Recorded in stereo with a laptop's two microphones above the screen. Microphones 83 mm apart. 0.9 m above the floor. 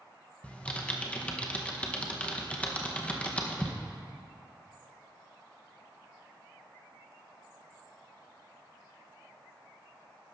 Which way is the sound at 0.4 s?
15° left (ahead or behind).